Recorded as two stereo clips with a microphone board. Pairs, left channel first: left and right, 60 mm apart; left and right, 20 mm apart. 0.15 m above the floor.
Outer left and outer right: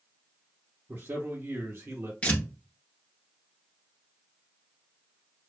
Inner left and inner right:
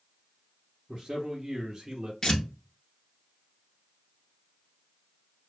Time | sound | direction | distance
0.9 | a man speaking | 35° right (ahead or behind) | 1.9 m
2.2 | tearing paper | 20° left (ahead or behind) | 1.2 m